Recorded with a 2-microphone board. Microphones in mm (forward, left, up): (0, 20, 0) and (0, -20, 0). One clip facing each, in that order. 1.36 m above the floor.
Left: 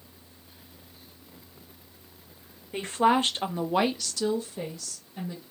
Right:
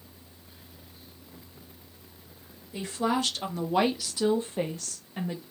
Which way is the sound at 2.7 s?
50° left (ahead or behind).